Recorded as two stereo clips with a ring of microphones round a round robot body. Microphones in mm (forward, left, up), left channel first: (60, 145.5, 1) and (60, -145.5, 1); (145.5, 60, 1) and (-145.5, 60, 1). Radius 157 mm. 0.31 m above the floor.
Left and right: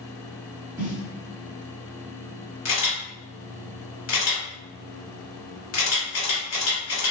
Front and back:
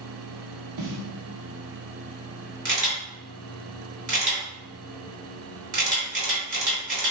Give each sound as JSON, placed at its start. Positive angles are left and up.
{"t": 0.8, "sound": "a snare drum", "azimuth_deg": -160, "distance_m": 0.9}
{"t": 2.6, "sound": "a camera shutter", "azimuth_deg": 125, "distance_m": 1.8}